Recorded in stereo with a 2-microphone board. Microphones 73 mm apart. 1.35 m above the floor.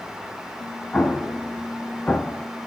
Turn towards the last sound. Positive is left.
turn(degrees=15)  # may be behind; listen again after turning